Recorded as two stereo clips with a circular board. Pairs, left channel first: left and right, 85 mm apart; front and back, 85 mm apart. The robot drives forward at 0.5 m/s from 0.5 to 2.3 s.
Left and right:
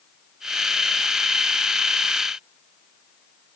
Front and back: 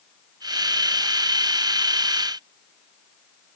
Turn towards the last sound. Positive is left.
No sound to turn to.